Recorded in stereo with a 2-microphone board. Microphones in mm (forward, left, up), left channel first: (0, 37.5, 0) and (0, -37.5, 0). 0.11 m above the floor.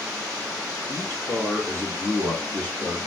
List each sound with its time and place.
0.9 s a man speaking: 30° left (ahead or behind), 1.8 m; by 3.1 s 15° left (ahead or behind), 1.3 m